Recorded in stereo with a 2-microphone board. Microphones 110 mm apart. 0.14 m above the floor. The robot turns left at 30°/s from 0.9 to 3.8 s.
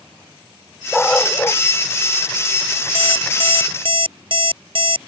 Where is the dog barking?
5° left (ahead or behind); by 1.6 s 25° left (ahead or behind).